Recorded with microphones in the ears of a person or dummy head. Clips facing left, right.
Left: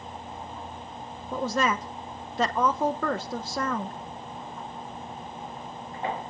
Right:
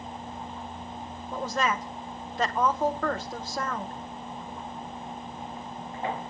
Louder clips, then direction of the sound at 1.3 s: Left 2 dB; 85° left.